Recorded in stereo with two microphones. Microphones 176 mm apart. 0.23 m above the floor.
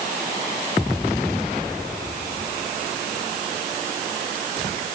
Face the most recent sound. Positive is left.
No sound to turn to.